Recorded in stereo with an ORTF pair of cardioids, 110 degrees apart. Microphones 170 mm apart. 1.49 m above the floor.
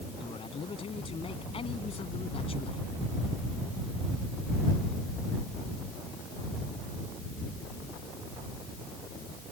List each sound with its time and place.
0.2 s a man speaking: 35° left